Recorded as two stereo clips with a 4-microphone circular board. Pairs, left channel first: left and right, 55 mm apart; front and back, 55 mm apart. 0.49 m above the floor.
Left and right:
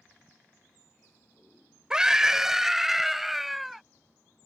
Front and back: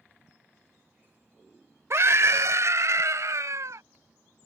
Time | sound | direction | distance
1.9 | a scream | 165° right | ?